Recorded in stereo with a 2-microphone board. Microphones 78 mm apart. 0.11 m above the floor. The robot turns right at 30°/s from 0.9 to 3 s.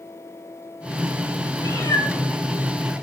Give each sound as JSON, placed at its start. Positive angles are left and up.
{"t": 1.6, "sound": "a cat meowing", "side_deg": 65, "distance_m": 7.0}